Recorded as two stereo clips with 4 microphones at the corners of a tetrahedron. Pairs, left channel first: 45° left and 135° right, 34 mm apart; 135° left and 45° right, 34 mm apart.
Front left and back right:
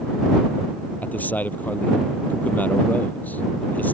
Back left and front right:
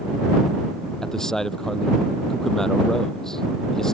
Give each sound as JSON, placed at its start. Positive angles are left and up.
{"t": 1.0, "sound": "a man speaking", "azimuth_deg": 65}